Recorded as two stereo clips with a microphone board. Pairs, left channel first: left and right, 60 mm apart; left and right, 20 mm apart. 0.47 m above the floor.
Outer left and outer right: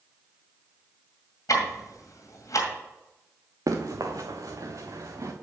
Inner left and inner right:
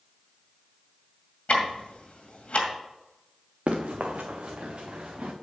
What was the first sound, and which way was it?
Ticking, 70° left (ahead or behind).